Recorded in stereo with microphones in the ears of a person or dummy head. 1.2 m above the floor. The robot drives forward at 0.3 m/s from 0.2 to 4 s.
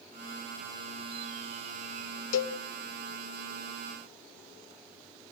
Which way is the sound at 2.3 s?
70° left (ahead or behind).